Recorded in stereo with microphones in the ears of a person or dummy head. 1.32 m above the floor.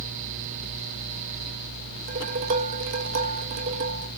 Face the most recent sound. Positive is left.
turn(degrees=-50)  # may be behind; listen again after turning